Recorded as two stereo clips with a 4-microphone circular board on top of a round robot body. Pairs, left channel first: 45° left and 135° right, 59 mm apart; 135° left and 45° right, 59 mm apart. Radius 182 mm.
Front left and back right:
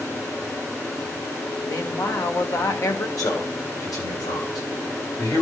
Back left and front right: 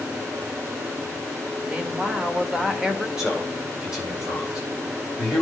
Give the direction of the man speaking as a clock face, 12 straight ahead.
11 o'clock.